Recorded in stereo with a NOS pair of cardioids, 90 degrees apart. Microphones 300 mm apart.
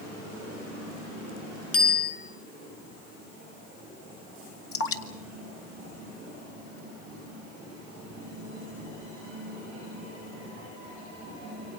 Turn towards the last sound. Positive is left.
turn(degrees=50)